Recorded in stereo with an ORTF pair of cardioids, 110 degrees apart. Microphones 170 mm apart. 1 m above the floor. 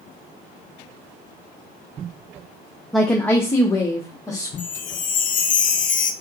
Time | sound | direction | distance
2.9 | a woman speaking | straight ahead | 0.5 m
4.6 | a chime | 50° left | 0.6 m